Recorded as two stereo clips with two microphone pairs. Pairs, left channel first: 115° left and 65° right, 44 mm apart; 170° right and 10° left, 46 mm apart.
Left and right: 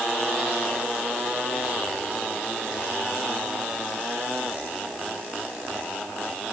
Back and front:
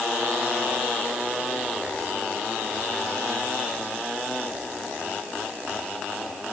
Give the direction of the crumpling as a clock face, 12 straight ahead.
I don't hear crumpling.